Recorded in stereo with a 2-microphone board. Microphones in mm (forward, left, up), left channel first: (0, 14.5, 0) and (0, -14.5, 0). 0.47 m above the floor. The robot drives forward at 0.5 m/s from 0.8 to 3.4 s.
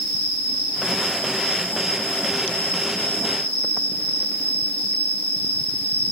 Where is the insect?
45° left (ahead or behind), 3 m; by 6.1 s 65° left (ahead or behind), 2 m.